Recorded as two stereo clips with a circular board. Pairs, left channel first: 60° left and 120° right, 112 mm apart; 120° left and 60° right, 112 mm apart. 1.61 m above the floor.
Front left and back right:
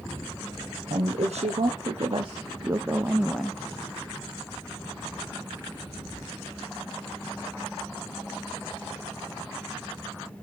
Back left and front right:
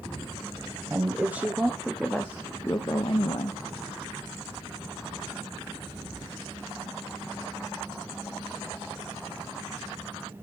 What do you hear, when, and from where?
0.9 s a woman speaking: 130° right, 1.1 m; by 3.6 s 145° left, 0.8 m